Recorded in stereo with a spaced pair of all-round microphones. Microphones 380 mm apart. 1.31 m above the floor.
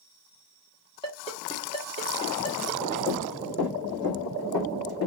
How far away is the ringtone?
About 1.5 m.